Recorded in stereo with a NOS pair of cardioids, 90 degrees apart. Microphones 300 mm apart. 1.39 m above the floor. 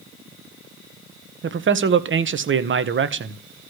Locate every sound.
1.4 s a man speaking: 40° right, 1.3 m